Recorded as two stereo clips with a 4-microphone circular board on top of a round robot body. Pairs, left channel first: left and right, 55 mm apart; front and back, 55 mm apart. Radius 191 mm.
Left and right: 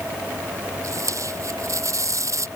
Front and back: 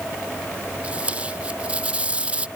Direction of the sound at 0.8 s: 110° right.